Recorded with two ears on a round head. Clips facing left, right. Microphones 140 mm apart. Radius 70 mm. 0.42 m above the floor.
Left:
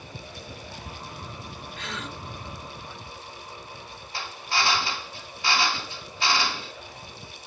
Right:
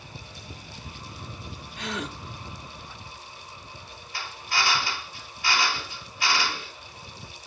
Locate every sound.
1.8 s a gasp: 15° right (ahead or behind), 1.3 m
4.1 s a drill: 25° left (ahead or behind), 2.5 m